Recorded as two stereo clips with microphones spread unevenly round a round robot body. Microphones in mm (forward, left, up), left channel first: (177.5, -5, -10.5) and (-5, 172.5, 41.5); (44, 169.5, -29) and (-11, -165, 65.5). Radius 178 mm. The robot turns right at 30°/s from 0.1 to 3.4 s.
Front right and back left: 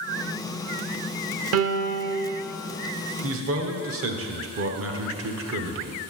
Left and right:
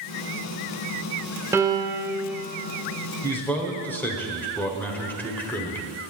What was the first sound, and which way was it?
A piano, 165° left.